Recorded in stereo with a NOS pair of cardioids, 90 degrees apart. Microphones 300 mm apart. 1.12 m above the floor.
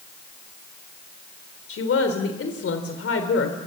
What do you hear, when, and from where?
1.7 s a woman speaking: 50° left, 3.5 m